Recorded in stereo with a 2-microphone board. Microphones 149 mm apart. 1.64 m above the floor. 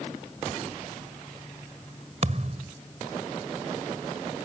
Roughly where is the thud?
Right.